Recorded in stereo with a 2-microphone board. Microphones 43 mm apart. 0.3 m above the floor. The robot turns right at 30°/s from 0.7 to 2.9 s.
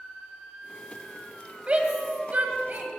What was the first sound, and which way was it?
A shout, 35° right (ahead or behind).